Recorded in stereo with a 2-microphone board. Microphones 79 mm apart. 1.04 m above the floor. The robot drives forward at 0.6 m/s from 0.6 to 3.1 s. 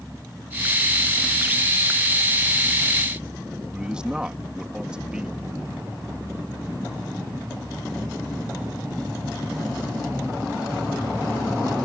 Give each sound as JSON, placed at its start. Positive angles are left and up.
{"t": 3.7, "sound": "a man speaking", "side_deg": -10}